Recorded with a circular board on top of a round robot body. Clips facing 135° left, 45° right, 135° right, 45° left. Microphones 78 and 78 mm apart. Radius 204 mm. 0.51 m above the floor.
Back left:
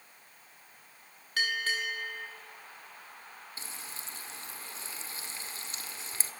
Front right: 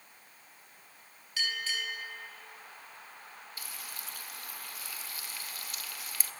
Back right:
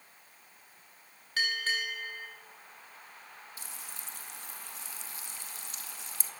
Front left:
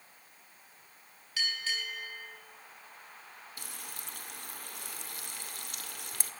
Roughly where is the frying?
Left.